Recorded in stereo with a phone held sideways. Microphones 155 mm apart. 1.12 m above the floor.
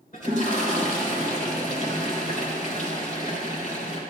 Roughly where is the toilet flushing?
Left.